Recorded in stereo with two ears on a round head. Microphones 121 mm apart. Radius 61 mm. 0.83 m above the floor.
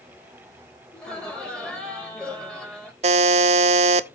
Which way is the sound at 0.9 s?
5° left (ahead or behind).